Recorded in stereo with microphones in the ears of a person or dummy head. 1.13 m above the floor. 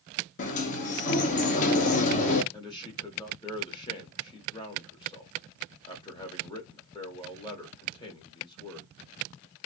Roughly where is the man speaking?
Left.